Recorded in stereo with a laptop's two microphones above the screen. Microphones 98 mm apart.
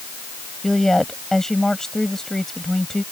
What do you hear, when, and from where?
0.6 s a woman speaking: 5° left (ahead or behind)